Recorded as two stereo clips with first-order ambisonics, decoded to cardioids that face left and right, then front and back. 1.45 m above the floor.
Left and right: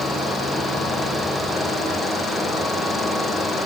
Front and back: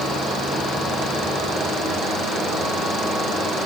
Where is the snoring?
No snoring in this recording.